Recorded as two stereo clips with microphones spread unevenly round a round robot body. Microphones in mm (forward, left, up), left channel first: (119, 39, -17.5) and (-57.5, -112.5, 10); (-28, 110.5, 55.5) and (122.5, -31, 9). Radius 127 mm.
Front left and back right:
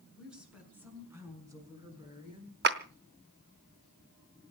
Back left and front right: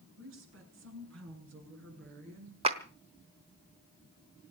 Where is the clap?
100° right, 1.1 m.